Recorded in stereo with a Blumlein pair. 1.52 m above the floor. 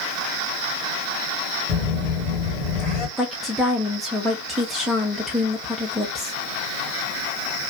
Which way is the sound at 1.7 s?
30° left.